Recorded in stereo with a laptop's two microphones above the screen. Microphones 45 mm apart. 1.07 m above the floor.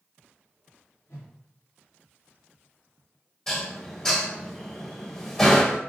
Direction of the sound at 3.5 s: 10° left (ahead or behind).